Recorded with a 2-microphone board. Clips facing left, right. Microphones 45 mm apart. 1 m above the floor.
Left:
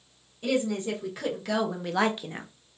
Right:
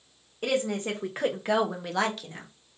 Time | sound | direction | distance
0.4 | a woman speaking | 55° right (ahead or behind) | 1.3 m